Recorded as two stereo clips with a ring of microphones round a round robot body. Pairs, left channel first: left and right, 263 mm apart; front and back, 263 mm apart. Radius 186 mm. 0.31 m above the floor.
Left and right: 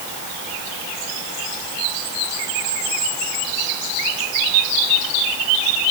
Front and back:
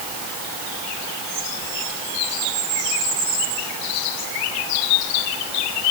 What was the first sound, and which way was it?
Only background noise.